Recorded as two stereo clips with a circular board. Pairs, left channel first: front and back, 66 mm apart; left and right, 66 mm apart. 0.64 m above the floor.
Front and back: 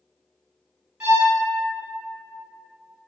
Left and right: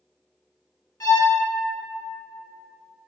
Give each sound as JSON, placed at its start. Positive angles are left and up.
{"t": 1.0, "sound": "a violin", "azimuth_deg": 110, "distance_m": 1.3}